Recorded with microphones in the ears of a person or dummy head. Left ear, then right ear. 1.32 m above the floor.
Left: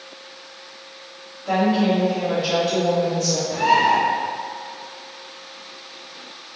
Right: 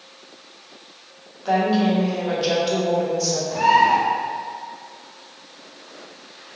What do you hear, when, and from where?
1.4 s a woman speaking: 65° right (ahead or behind), 0.9 m
3.5 s a bird: 15° left (ahead or behind), 0.9 m